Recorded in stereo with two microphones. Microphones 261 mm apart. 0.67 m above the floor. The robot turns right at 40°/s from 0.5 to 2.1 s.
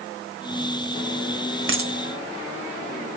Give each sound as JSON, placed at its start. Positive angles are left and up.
{"t": 1.7, "sound": "a dropped coin", "side_deg": -50, "distance_m": 1.1}